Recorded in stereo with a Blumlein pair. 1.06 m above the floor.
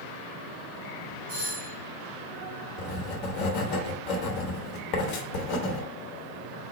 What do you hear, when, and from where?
1.3 s a doorbell: 55° right, 2.5 m
2.8 s writing: 40° left, 0.9 m